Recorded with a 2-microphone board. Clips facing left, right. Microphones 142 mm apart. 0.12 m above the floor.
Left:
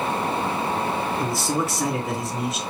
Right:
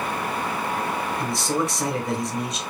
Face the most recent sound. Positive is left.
turn(degrees=5)  # may be behind; listen again after turning